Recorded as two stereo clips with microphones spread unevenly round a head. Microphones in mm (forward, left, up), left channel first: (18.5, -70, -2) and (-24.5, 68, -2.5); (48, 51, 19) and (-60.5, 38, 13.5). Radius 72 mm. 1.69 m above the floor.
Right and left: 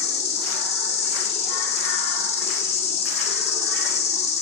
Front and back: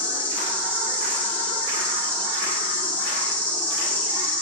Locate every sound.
0.0 s an insect: 60° right, 1.0 m